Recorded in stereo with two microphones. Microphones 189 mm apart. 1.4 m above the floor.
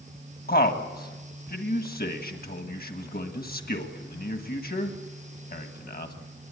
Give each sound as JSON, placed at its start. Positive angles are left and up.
{"t": 0.5, "sound": "a man speaking", "side_deg": 55, "distance_m": 1.5}